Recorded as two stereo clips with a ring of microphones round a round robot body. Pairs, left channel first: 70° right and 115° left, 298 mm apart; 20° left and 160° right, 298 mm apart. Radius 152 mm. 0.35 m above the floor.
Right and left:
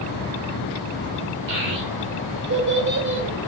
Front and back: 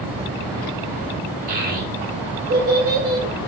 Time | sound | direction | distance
1.5 | a child speaking | 150° left | 0.9 m